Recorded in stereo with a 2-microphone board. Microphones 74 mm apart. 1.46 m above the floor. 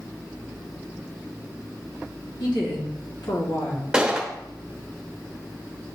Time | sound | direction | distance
2.4 | a woman speaking | 80° left | 3 m
3.9 | a gunshot | 10° right (ahead or behind) | 1.0 m